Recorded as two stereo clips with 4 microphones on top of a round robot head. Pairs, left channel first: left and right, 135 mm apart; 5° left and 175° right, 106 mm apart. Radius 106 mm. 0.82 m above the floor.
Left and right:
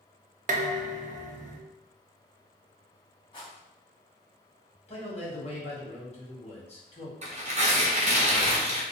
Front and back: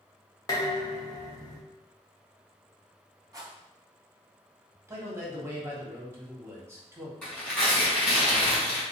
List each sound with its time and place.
0.5 s dishes clattering: 55° right, 0.5 m
3.3 s a rattle: 135° left, 1.6 m
4.9 s a man speaking: 125° left, 1.5 m
7.2 s tearing paper: 75° right, 1.5 m